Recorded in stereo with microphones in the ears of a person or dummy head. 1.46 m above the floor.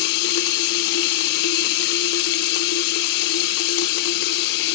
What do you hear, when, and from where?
0.0 s running water: 60° left (ahead or behind), 0.7 m